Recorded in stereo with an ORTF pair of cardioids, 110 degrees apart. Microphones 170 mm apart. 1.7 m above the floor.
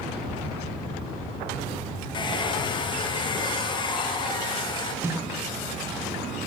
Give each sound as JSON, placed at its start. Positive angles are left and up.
{"t": 0.1, "sound": "a child speaking", "azimuth_deg": -35, "distance_m": 5.0}
{"t": 2.1, "sound": "a hair dryer", "azimuth_deg": 30, "distance_m": 0.8}
{"t": 5.0, "sound": "a snare drum", "azimuth_deg": -15, "distance_m": 1.1}